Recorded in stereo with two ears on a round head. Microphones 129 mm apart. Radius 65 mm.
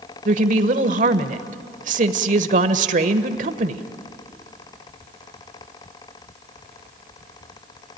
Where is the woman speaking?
55° right (ahead or behind), 1.3 m.